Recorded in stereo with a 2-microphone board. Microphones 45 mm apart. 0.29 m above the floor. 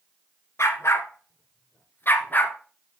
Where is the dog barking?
85° left, 1.3 m; by 2.5 s 40° left (ahead or behind), 1.4 m.